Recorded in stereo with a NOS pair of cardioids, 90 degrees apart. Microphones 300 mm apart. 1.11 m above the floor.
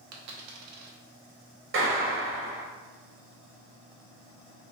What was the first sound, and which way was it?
A dropped coin, 65° right.